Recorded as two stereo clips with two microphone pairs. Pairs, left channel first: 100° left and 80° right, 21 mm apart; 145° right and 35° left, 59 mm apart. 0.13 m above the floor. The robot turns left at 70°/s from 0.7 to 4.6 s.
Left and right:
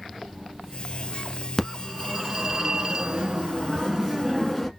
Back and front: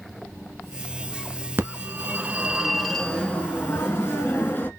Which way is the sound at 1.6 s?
35° left.